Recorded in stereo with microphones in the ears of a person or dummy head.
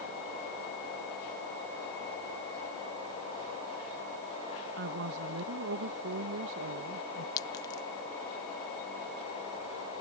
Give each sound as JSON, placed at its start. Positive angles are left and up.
{"t": 4.8, "sound": "a woman speaking", "side_deg": -65}
{"t": 7.4, "sound": "a clink", "side_deg": 20}